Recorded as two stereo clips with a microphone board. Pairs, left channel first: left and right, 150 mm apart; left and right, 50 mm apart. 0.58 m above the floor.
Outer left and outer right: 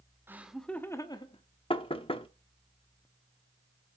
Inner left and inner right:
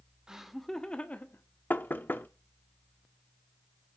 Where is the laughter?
15° right (ahead or behind), 0.9 m; by 1.4 s 40° left (ahead or behind), 1.1 m.